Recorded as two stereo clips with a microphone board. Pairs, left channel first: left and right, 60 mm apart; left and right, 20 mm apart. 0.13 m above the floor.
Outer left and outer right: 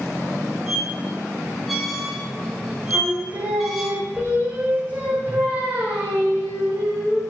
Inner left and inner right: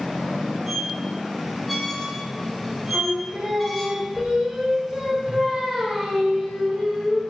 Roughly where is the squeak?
Centre.